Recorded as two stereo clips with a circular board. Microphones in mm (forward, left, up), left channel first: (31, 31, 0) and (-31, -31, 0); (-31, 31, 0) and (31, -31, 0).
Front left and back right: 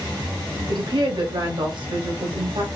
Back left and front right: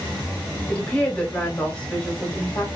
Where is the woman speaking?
150° right, 1.4 m.